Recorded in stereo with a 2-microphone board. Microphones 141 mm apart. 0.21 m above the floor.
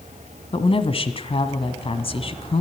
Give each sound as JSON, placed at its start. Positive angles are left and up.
{"t": 0.5, "sound": "a woman speaking", "side_deg": 45, "distance_m": 1.7}